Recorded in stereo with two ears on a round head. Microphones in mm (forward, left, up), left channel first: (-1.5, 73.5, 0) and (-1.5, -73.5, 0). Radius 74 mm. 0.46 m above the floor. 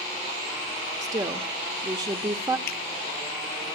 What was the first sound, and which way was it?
A woman speaking, 25° right (ahead or behind).